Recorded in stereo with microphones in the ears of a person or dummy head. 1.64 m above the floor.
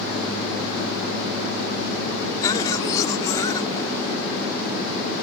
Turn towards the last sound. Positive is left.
turn(degrees=25)  # may be behind; listen again after turning